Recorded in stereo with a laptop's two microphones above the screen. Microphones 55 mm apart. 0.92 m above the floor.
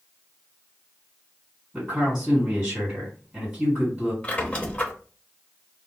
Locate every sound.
1.7 s a man speaking: 10° right (ahead or behind), 1.7 m
4.2 s a squeak: 25° left (ahead or behind), 0.7 m